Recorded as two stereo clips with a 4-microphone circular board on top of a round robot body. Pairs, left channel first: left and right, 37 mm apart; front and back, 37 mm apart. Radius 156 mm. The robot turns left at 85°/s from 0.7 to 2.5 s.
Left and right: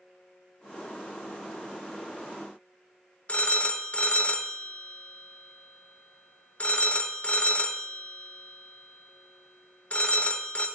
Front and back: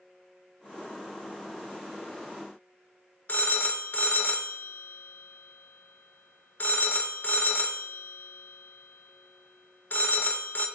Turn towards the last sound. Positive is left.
turn(degrees=40)